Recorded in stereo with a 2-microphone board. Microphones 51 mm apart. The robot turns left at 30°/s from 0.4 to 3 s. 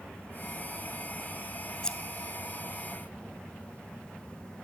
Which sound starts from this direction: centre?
Scissors, at 1.8 s.